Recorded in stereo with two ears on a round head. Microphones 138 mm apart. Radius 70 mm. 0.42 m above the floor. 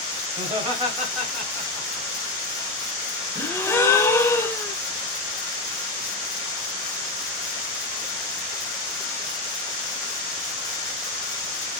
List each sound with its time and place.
0.4 s laughter: 20° right (ahead or behind), 1.8 m; by 2.1 s 20° left (ahead or behind), 1.4 m
3.4 s a gasp: 15° left (ahead or behind), 0.7 m